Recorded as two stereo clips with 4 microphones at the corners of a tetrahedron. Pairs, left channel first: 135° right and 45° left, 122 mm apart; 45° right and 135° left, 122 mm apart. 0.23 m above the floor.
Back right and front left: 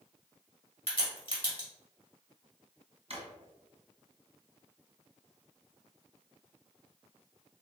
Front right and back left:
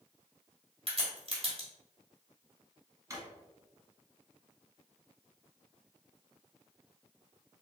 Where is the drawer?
70° left, 1.3 m.